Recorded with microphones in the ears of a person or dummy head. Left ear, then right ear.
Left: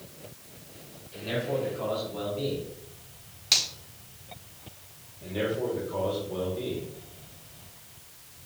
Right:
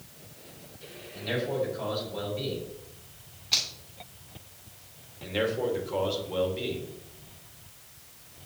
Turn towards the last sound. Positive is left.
turn(degrees=-70)  # may be behind; listen again after turning